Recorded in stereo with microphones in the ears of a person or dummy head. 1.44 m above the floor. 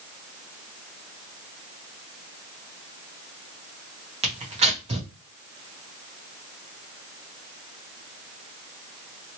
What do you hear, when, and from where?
4.2 s tearing paper: 35° right (ahead or behind), 0.9 m